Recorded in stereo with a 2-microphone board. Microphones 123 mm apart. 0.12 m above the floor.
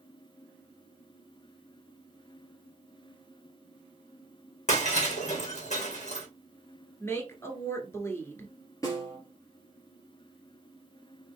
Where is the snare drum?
30° left (ahead or behind), 2.5 m.